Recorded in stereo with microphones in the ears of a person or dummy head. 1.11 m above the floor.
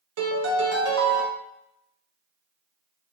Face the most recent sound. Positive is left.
turn(degrees=-80)